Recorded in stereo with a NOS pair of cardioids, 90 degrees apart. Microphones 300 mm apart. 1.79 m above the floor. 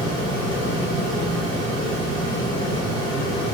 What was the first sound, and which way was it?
A fan, 40° right.